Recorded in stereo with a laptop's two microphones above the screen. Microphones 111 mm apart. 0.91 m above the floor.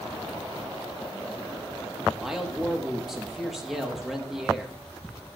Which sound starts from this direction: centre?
A man speaking, at 2.1 s.